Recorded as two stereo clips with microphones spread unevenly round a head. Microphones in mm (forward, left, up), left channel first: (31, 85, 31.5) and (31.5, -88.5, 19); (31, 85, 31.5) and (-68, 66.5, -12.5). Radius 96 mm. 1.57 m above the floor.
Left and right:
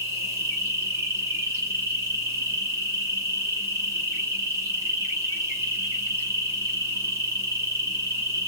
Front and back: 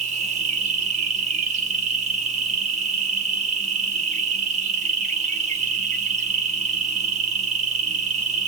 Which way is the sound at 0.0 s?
170° right.